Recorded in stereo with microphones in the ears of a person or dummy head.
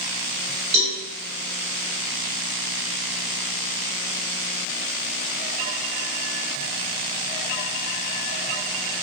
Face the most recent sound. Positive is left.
turn(degrees=-5)  # may be behind; listen again after turning